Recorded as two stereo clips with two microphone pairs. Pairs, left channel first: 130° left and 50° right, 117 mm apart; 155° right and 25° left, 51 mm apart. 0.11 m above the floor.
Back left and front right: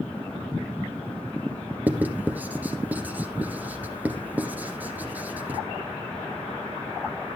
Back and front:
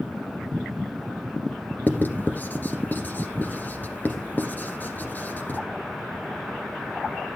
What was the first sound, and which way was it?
Writing, 120° right.